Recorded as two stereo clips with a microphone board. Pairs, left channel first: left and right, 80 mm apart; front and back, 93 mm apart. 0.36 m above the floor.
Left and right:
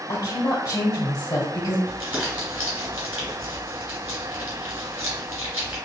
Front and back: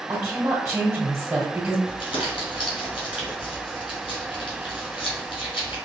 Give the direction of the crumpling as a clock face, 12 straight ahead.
1 o'clock.